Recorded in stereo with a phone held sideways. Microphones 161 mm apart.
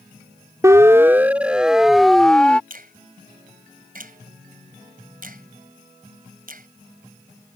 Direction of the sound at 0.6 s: 20° right (ahead or behind).